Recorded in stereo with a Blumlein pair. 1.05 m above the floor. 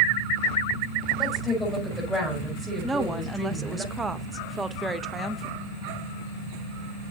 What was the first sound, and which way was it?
A woman speaking, 5° right.